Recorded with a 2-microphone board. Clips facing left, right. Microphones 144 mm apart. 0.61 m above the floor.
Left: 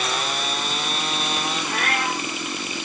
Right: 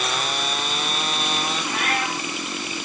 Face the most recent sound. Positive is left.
turn(degrees=45)  # may be behind; listen again after turning